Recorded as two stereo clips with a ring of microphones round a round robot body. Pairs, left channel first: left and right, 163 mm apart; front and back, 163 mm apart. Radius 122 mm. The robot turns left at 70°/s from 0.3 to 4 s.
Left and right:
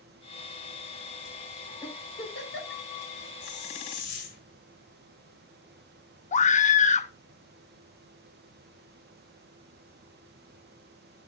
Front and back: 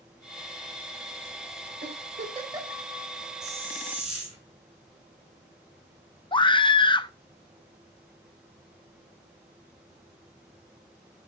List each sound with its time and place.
1.8 s a giggle: 165° left, 3.5 m; by 2.8 s 95° left, 3.5 m
3.4 s a hiss: 140° left, 7 m; by 4.4 s 95° left, 7 m
6.3 s a scream: 55° left, 0.8 m